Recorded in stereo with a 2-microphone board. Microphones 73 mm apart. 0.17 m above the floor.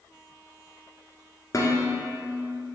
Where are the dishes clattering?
50° left (ahead or behind), 1.5 m.